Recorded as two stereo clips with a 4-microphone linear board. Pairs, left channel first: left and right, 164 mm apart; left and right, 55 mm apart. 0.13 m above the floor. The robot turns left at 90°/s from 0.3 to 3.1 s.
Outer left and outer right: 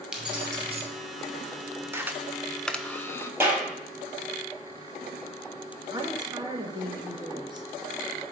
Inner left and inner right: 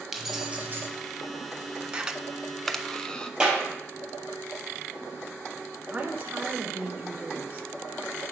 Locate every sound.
0.1 s keys jangling: 5° right, 1.5 m; by 0.9 s 60° right, 1.5 m
1.9 s a camera shutter: 15° right (ahead or behind), 0.5 m; by 3.3 s 15° left (ahead or behind), 0.5 m
3.4 s a clap: 15° right (ahead or behind), 3 m
5.9 s a woman speaking: 30° right (ahead or behind), 1.1 m